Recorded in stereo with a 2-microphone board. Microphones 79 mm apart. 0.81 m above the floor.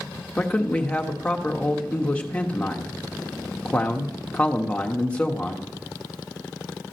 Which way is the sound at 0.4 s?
15° left (ahead or behind).